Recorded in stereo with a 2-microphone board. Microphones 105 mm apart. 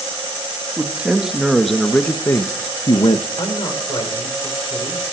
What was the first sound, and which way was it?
A man speaking, 10° right (ahead or behind).